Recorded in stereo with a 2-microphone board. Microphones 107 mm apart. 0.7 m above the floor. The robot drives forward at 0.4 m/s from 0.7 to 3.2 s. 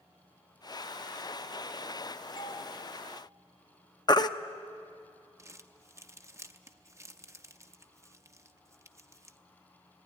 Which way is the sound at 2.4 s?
50° left (ahead or behind).